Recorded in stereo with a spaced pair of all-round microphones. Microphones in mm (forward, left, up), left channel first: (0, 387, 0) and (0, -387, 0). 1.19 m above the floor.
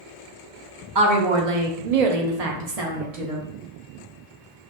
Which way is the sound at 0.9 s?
35° right (ahead or behind).